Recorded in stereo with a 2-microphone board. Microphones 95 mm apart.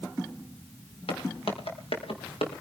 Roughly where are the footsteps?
Left.